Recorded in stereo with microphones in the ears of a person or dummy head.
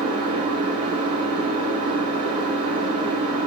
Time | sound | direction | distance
0.0 | an engine running | 60° right (ahead or behind) | 2 m